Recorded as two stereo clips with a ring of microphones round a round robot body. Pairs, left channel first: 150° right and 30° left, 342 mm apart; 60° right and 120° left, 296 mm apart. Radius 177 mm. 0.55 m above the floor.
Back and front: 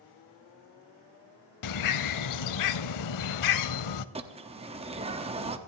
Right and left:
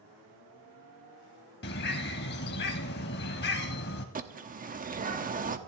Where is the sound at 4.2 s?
90° left, 1.1 m.